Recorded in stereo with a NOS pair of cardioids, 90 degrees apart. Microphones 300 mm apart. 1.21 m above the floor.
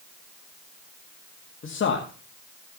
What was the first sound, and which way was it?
A man speaking, 40° left.